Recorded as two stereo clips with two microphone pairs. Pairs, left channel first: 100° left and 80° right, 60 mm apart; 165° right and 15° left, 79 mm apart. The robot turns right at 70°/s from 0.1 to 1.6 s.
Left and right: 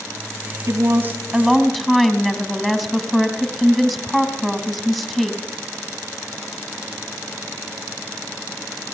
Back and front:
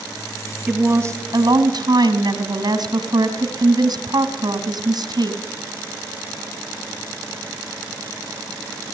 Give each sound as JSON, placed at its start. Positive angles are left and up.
{"t": 0.7, "sound": "a woman speaking", "azimuth_deg": -60, "distance_m": 2.5}